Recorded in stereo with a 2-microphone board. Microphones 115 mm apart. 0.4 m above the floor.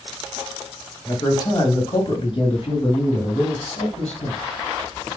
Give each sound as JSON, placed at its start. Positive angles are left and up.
{"t": 1.1, "sound": "a man speaking", "side_deg": 30, "distance_m": 2.0}